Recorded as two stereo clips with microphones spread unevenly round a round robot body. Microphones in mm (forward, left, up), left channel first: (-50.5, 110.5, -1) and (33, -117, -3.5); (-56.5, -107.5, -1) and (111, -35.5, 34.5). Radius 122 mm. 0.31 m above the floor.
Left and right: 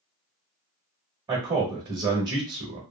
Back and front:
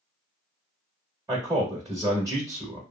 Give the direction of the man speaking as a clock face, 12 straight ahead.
2 o'clock.